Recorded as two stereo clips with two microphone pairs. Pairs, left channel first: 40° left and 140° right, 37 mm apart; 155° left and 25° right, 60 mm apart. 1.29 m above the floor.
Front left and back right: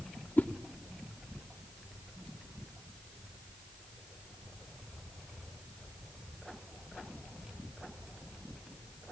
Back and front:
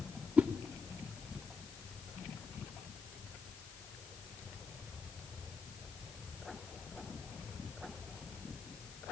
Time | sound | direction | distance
0.4 | a whoosh | 40° left | 0.5 m